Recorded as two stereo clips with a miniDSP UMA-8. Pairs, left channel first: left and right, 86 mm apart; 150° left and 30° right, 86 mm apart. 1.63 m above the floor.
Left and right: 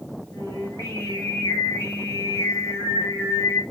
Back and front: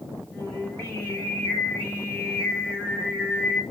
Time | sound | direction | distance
0.3 | singing | 100° left | 1.4 m